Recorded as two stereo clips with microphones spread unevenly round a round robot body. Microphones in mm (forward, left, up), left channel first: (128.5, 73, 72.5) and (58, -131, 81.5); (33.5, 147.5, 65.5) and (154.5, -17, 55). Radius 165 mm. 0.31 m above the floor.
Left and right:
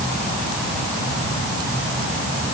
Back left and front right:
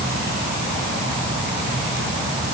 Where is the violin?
I don't hear a violin.